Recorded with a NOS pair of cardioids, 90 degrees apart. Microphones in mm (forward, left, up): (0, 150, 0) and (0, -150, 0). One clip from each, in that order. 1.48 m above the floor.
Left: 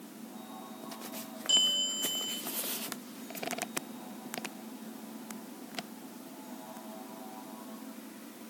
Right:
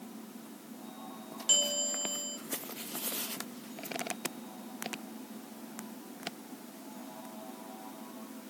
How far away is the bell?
About 4.5 m.